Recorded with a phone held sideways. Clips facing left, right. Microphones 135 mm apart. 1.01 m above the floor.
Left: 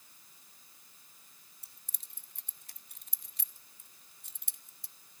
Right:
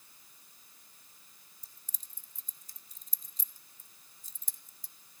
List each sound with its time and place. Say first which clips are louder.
1.6 s keys jangling: even; 70° left (ahead or behind), 0.7 m